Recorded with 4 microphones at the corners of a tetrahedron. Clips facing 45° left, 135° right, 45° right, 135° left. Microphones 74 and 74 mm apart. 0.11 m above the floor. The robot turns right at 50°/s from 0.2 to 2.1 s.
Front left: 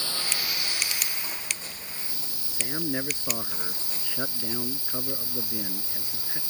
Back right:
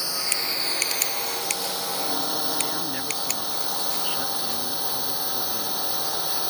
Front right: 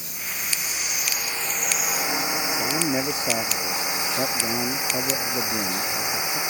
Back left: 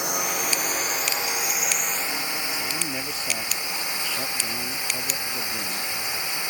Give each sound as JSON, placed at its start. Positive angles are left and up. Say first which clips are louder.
{"t": 0.0, "sound": "a drone", "louder": "back right 2 dB, back left 8 dB", "azimuth_deg": 150}
{"t": 2.5, "sound": "a man speaking", "louder": "back right 1 dB, front right 6 dB", "azimuth_deg": -10}